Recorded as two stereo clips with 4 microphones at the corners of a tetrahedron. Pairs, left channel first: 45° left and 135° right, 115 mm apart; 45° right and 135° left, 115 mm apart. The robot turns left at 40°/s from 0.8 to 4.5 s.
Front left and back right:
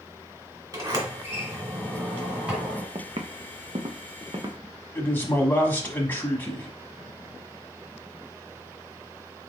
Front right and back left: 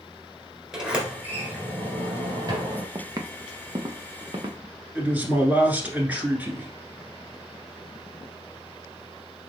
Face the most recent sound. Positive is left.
turn(degrees=85)